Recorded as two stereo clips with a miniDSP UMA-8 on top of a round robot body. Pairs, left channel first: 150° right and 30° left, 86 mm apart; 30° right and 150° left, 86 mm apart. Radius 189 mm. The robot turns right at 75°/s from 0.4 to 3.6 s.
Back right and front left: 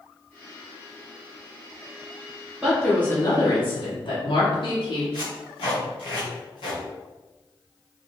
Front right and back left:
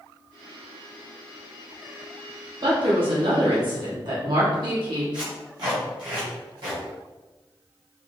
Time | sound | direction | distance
2.6 | a woman speaking | 110° left | 1.5 m
5.1 | tape being pulled | 175° right | 1.0 m